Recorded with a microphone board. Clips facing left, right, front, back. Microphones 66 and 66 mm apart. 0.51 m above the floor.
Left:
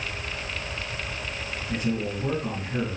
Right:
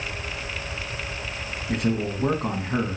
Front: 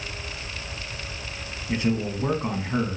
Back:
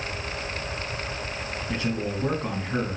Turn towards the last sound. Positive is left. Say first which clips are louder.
# right 3 dB, front 4 dB
turn(degrees=-70)